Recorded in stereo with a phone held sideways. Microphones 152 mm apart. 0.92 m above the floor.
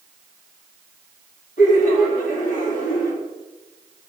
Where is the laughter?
60° left (ahead or behind), 2.5 m.